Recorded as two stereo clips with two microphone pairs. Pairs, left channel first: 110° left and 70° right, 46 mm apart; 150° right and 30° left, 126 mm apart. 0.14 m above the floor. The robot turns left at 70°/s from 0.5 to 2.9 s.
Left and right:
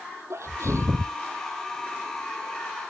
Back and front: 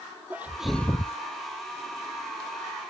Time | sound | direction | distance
0.3 | a sneeze | 45° right | ?